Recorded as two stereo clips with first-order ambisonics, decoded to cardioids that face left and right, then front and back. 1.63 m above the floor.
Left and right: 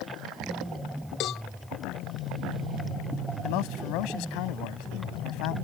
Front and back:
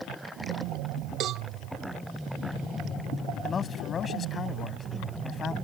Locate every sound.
1.2 s a cowbell: 135° left
3.4 s a man speaking: 70° left